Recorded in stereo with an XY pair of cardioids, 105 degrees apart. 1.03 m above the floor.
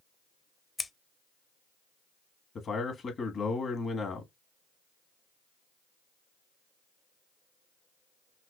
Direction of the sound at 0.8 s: 20° left.